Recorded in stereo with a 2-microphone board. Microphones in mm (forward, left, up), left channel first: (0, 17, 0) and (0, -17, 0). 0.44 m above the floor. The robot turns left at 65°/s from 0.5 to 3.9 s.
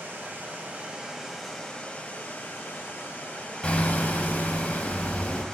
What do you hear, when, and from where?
0.0 s running water: 120° right, 1.1 m; by 5.5 s 20° left, 1.1 m
3.6 s hammering: 30° left (ahead or behind), 0.6 m; by 5.4 s 50° left (ahead or behind), 0.6 m